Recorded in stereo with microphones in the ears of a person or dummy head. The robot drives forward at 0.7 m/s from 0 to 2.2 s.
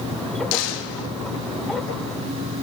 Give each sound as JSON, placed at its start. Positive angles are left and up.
{"t": 0.5, "sound": "a gunshot", "side_deg": 70, "distance_m": 2.0}